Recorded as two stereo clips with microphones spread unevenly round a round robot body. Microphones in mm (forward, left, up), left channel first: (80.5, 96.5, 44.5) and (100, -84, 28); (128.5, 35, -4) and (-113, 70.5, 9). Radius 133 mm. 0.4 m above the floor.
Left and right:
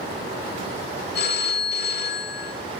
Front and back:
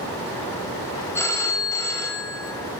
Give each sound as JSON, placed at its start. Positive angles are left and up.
{"t": 1.1, "sound": "a phone ringing", "azimuth_deg": 70, "distance_m": 1.4}